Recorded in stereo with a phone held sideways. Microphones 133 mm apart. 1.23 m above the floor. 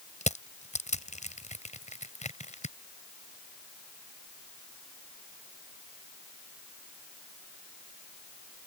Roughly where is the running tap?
I don't hear a running tap.